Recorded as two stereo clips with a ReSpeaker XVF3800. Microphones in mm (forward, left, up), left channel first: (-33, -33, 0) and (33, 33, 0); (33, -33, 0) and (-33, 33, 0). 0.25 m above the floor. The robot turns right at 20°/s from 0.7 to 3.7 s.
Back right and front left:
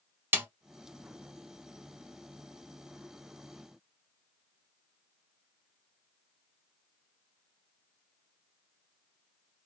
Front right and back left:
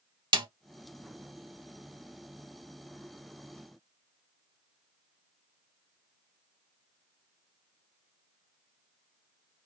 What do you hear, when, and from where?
0.3 s a snare drum: 110° left, 0.7 m